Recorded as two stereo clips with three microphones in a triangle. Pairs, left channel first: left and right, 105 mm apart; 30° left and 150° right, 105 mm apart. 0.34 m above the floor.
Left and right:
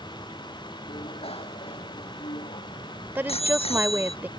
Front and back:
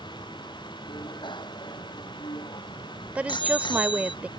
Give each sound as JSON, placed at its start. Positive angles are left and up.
{"t": 0.9, "sound": "a bicycle bell", "azimuth_deg": 70}
{"t": 3.1, "sound": "a woman speaking", "azimuth_deg": -105}